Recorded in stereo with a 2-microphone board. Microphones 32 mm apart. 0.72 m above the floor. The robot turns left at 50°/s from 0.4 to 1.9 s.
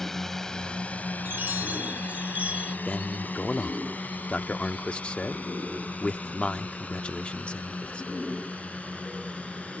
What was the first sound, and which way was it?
A drone, 15° left (ahead or behind).